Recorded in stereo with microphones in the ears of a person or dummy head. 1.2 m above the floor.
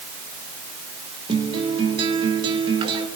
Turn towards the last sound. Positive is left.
turn(degrees=-20)  # may be behind; listen again after turning